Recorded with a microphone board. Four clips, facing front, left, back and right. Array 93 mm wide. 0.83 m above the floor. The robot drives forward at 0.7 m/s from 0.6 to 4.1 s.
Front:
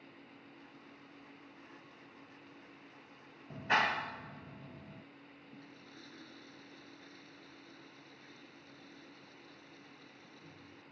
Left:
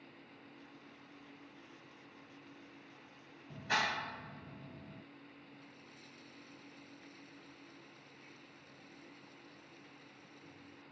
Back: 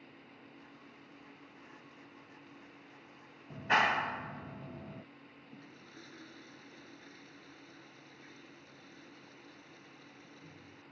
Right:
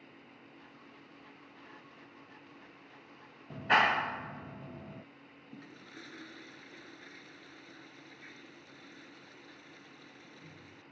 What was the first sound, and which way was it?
A clap, 75° right.